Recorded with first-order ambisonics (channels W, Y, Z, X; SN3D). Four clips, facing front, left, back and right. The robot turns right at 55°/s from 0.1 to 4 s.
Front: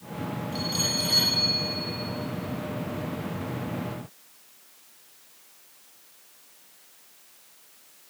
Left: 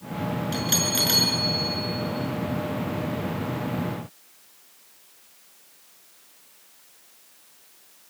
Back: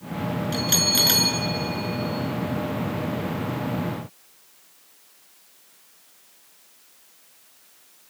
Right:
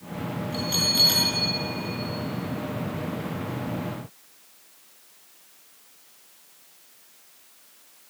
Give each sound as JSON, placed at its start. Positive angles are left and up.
{"t": 0.5, "sound": "a bell", "azimuth_deg": 140, "distance_m": 5.5}